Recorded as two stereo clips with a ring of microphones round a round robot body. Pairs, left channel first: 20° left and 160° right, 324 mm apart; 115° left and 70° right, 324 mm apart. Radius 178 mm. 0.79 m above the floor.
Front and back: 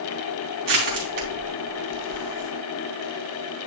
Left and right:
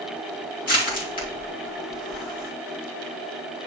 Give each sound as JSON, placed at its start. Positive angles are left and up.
{"t": 0.7, "sound": "crushing", "azimuth_deg": 175, "distance_m": 3.0}